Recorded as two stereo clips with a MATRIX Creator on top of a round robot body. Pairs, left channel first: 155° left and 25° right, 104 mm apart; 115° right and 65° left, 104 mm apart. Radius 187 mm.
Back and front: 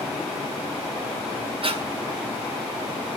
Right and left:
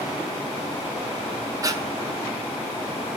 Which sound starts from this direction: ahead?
Breathing, at 1.6 s.